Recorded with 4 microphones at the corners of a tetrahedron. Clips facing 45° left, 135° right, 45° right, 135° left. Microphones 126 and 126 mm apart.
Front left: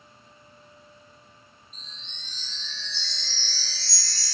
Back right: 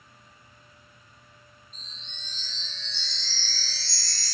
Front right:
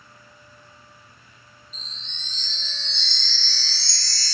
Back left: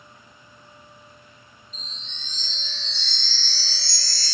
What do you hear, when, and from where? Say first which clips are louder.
1.7 s a chime: front left 1 dB, back left 2 dB; 35° right, 0.6 m